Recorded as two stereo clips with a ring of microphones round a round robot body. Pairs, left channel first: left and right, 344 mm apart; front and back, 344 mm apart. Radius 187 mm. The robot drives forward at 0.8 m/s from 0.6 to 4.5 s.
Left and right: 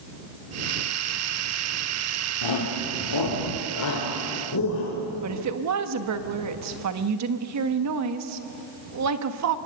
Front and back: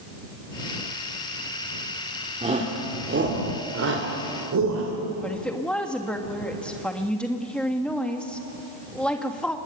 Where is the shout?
105° left, 2 m; by 4.9 s 140° left, 3 m.